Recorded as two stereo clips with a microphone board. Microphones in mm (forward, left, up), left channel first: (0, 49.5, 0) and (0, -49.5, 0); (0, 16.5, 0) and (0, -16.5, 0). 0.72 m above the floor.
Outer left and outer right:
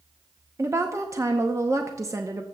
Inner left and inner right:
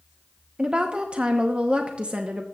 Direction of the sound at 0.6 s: 30° right (ahead or behind).